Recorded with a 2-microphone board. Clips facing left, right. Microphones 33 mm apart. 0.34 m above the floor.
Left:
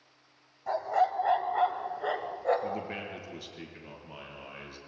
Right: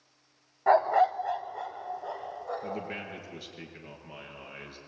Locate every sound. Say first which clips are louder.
0.7 s a dog barking: right 5 dB; 55° right (ahead or behind), 0.6 m; by 2.8 s 65° left (ahead or behind), 2.5 m
2.6 s a man speaking: left 1 dB; 5° right (ahead or behind), 4.5 m